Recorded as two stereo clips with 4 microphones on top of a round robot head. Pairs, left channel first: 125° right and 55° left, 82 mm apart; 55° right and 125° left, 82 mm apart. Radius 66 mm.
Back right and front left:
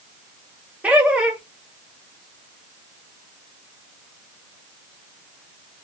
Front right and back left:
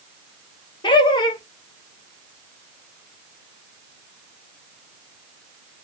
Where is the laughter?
20° right, 0.8 m.